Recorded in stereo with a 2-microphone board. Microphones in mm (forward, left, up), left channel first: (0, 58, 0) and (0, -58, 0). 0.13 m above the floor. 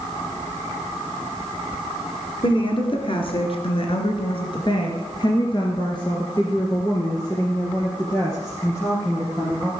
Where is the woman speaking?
45° left (ahead or behind), 2 m; by 9.7 s 20° left (ahead or behind), 3.5 m.